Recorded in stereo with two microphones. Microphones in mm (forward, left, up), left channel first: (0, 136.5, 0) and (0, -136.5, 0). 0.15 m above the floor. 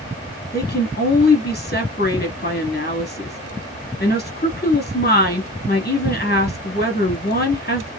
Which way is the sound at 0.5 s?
35° left (ahead or behind).